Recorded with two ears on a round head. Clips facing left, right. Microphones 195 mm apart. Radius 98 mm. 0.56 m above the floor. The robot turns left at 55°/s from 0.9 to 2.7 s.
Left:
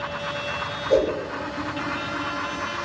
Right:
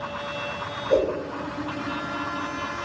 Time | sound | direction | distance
0.9 | a whoosh | centre (ahead or behind) | 1.1 m